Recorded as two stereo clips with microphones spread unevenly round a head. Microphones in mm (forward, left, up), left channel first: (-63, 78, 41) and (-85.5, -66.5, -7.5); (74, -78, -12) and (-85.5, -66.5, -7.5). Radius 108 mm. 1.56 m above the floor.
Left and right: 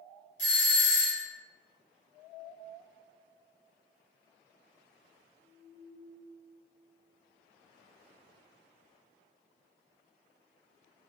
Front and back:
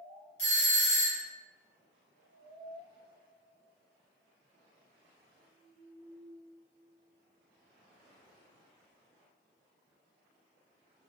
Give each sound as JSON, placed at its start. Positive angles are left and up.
{"t": 0.4, "sound": "a doorbell", "azimuth_deg": 35, "distance_m": 1.1}